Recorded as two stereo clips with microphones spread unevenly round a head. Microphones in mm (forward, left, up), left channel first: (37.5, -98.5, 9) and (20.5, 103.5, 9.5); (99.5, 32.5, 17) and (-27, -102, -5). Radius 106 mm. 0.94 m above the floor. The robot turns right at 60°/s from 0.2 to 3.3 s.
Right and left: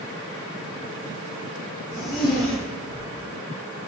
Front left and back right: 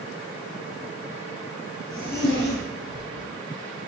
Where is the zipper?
40° right, 3.5 m; by 3.2 s 45° left, 3.5 m.